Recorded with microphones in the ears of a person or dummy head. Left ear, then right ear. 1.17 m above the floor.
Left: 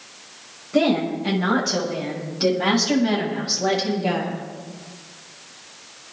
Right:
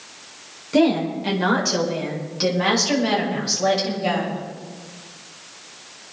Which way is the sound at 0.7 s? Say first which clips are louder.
Right 1 dB; 70° right (ahead or behind).